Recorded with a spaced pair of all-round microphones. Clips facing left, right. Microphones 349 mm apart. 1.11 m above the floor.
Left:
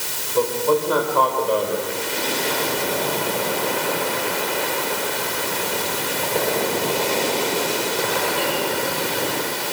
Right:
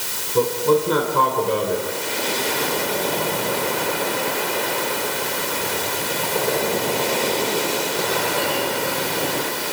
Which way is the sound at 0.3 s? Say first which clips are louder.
Right 2 dB; 30° right (ahead or behind).